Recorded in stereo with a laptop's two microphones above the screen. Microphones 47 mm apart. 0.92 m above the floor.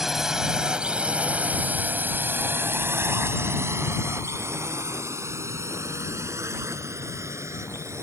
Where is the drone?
10° right (ahead or behind); by 8.0 s 80° right.